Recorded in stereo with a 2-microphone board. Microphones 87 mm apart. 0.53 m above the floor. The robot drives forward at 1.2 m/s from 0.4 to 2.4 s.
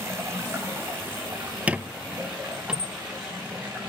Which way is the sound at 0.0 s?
30° right (ahead or behind).